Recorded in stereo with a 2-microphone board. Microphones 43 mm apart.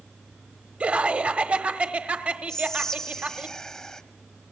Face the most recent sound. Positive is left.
turn(degrees=10)  # may be behind; listen again after turning